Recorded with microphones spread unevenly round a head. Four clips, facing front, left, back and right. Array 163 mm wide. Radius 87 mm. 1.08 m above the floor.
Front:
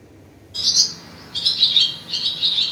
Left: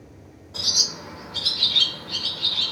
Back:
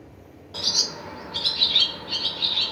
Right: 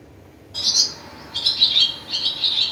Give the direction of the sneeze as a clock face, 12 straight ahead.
I don't hear a sneeze.